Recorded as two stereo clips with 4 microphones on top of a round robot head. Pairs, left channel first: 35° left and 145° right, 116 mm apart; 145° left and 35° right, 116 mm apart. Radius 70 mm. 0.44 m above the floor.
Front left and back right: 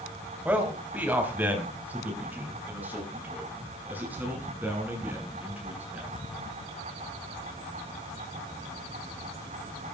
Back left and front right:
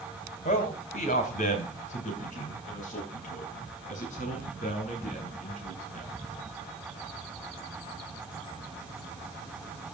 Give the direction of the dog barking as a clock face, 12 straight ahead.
No dog barking in this recording.